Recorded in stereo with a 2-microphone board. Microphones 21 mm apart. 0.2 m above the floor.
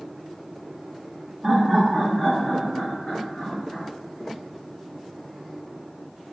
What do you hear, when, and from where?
1.4 s laughter: 10° right (ahead or behind), 1.2 m; by 3.9 s 55° left (ahead or behind), 1.9 m